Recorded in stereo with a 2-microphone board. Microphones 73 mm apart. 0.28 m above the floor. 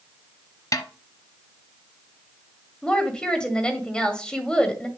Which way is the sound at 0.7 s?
55° left (ahead or behind).